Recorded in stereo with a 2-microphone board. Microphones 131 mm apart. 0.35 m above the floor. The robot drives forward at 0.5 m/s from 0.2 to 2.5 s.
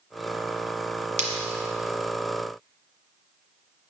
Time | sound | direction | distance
1.2 | breaking glass | 55° right (ahead or behind) | 1.4 m